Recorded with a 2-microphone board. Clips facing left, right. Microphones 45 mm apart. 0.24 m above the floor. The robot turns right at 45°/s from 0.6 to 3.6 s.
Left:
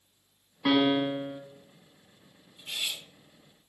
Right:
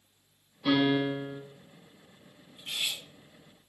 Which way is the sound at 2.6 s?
55° right (ahead or behind).